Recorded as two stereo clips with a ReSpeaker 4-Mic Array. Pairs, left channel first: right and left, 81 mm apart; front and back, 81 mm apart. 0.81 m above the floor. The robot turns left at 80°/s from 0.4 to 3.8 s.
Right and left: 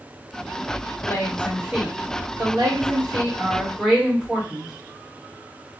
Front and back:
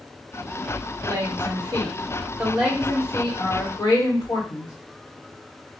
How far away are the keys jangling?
No keys jangling in this recording.